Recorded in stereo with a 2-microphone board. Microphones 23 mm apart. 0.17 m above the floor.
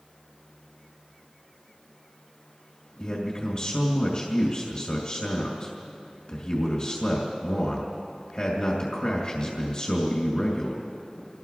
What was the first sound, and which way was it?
A man speaking, 40° left (ahead or behind).